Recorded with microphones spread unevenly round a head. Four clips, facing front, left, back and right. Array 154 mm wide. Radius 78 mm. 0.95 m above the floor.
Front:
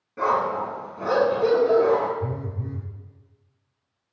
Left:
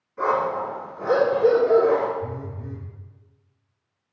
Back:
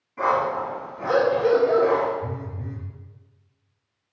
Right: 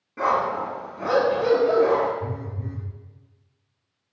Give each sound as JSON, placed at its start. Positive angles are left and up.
{"t": 0.2, "sound": "a dog barking", "azimuth_deg": -55, "distance_m": 4.5}
{"t": 2.2, "sound": "a phone buzzing", "azimuth_deg": -30, "distance_m": 2.0}